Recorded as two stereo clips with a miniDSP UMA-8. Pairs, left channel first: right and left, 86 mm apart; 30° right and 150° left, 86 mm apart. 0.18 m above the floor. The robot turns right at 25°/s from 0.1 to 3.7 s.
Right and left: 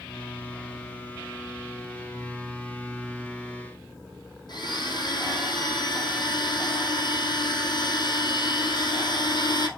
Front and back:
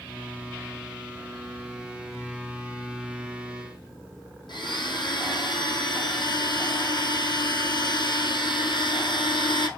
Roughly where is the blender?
Ahead right.